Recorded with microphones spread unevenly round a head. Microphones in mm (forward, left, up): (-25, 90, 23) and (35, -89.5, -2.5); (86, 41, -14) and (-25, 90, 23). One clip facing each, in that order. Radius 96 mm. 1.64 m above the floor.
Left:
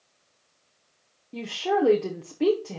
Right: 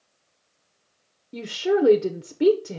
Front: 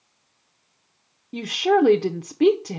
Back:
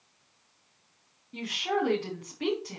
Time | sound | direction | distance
1.3 | a woman speaking | straight ahead | 0.7 m